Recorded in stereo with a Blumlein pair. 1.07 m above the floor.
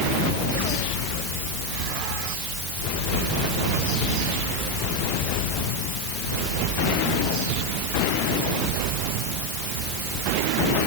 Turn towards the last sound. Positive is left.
No sound to turn to.